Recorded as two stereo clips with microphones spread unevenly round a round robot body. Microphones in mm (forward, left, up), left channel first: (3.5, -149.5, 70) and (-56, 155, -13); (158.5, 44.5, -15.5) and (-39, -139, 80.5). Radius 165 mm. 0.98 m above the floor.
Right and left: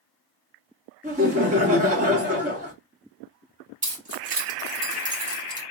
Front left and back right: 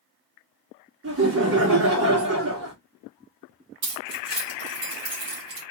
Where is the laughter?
165° left, 1.7 m.